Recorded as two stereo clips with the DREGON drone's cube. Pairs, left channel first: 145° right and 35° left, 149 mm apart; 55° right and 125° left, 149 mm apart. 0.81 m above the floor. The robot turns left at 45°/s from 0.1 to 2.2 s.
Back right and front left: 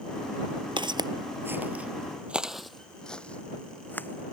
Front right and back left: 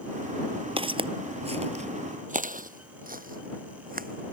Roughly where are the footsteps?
Left.